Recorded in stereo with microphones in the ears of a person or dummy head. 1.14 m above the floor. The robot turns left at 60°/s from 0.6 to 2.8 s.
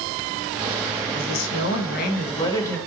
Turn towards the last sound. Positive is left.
turn(degrees=10)